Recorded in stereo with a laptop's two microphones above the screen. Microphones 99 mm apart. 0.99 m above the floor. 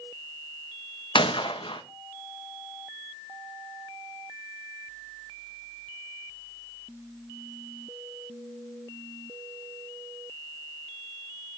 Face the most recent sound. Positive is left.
turn(degrees=55)  # may be behind; listen again after turning